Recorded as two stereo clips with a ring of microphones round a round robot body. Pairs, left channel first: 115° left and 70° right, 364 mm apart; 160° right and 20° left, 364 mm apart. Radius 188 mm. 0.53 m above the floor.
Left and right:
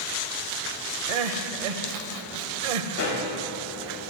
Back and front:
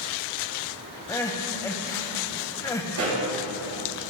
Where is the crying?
75° right, 0.8 m.